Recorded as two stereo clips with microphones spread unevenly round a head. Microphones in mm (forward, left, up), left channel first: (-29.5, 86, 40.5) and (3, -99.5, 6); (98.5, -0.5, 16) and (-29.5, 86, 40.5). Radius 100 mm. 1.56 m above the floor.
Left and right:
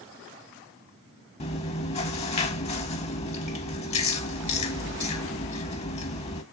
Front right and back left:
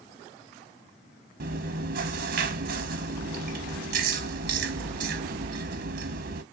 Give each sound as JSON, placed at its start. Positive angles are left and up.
{"t": 1.4, "sound": "chewing", "azimuth_deg": 145, "distance_m": 0.9}